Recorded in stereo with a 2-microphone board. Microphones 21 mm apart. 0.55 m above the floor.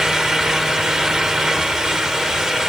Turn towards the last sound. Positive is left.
No sound to turn to.